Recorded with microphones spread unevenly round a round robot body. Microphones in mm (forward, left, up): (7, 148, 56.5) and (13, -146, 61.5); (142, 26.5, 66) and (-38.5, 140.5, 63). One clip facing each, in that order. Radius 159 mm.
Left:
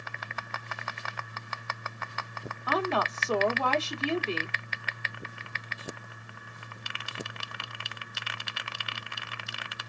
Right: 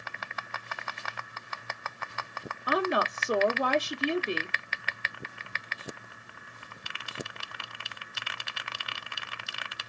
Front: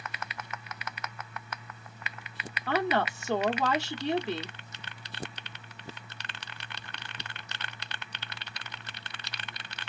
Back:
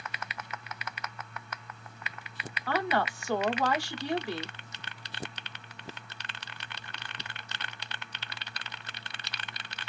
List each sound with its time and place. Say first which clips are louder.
2.7 s a woman speaking: right 1 dB, front 2 dB; 45° right, 0.8 m